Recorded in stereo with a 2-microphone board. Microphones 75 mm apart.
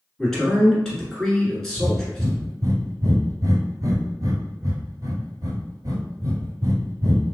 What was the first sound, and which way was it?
A man speaking, 5° left (ahead or behind).